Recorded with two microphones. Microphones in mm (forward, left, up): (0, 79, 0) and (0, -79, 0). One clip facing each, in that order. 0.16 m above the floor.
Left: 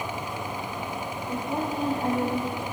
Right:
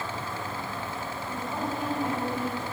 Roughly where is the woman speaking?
Left.